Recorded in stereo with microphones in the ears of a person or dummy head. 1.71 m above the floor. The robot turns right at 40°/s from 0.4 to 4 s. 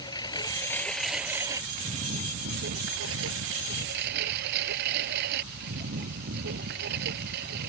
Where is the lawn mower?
150° left; by 7.7 s 65° right.